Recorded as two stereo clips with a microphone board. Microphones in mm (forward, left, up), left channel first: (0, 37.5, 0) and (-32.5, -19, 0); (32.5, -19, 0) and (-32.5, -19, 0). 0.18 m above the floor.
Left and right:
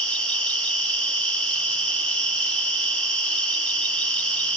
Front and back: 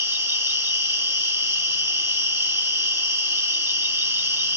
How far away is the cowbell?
No cowbell in this recording.